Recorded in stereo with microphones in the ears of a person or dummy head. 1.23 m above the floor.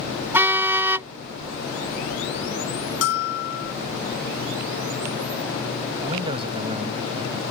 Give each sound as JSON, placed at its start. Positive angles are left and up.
{"t": 0.3, "sound": "a car horn", "side_deg": -15}
{"t": 3.0, "sound": "a bell", "side_deg": 70}
{"t": 6.0, "sound": "a man speaking", "side_deg": -25}